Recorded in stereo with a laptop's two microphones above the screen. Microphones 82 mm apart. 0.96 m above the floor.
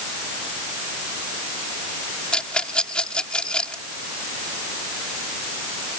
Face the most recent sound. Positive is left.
turn(degrees=10)  # may be behind; listen again after turning